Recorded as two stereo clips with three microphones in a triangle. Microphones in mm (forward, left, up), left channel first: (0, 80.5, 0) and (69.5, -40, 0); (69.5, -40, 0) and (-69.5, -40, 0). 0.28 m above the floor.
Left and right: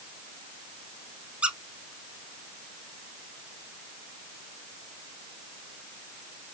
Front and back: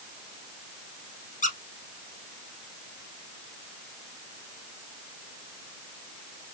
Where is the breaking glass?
No breaking glass in this recording.